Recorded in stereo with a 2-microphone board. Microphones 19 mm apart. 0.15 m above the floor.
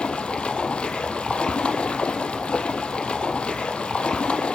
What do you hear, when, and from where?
0.0 s running water: 70° left (ahead or behind), 1.6 m